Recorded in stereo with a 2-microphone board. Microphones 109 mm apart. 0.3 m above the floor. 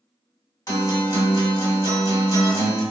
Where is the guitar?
35° left (ahead or behind), 1.7 m.